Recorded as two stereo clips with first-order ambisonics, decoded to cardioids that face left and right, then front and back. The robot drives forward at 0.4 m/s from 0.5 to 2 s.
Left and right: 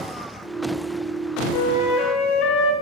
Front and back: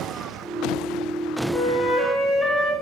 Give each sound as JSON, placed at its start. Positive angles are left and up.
{"t": 1.5, "sound": "a flute", "azimuth_deg": 70, "distance_m": 0.5}